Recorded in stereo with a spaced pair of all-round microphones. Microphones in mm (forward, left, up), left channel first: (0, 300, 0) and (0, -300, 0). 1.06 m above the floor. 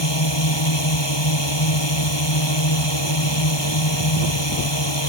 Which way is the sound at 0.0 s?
45° left (ahead or behind).